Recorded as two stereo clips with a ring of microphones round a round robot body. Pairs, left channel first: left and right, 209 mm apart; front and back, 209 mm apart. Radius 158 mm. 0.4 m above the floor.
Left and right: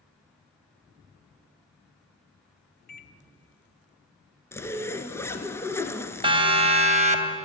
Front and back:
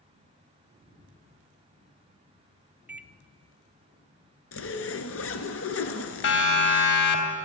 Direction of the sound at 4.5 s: 10° left.